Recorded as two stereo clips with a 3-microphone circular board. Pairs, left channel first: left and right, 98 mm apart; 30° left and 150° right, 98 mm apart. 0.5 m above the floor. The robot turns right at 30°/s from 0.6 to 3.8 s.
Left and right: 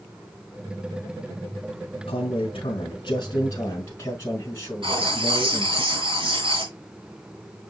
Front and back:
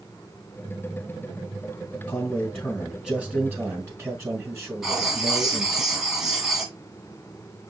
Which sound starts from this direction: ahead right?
Writing, at 4.8 s.